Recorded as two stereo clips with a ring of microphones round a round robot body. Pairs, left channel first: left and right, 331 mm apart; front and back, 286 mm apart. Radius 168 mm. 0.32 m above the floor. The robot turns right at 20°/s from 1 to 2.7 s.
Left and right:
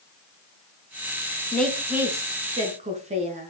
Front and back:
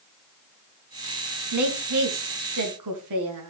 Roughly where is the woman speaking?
Behind.